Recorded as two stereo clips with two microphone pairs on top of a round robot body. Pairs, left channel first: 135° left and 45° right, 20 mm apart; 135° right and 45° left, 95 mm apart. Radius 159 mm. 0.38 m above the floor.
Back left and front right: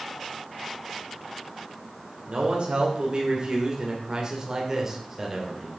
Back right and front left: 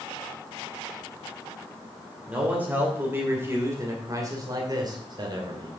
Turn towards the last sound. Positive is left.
turn(degrees=30)